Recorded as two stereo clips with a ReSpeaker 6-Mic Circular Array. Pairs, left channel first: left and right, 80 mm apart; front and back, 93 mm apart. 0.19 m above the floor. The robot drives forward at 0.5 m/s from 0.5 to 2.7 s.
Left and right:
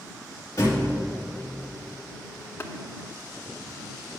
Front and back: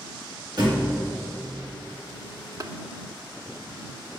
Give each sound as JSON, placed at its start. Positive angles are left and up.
{"t": 0.6, "sound": "a thud", "azimuth_deg": 140, "distance_m": 2.5}
{"t": 2.6, "sound": "tapping", "azimuth_deg": 140, "distance_m": 0.6}